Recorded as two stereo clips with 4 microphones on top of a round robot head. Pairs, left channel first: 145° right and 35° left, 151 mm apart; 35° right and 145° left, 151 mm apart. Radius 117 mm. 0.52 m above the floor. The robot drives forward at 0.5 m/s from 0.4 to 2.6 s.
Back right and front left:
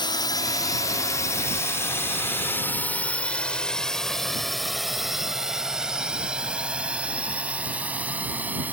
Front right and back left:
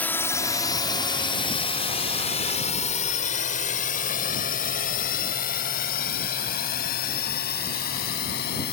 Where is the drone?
110° right; by 8.7 s 45° right.